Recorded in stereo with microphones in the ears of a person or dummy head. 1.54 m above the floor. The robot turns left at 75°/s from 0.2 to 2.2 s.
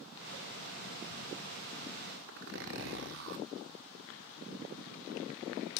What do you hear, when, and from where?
2.3 s a zipper: 70° right (ahead or behind), 1.4 m